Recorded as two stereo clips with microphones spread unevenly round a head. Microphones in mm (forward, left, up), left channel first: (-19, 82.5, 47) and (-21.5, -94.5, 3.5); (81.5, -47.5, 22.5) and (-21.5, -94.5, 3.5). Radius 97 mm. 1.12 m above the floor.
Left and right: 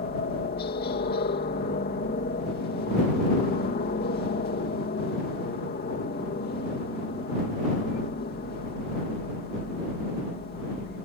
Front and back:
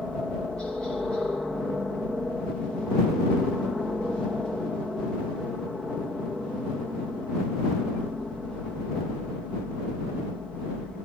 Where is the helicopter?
115° left.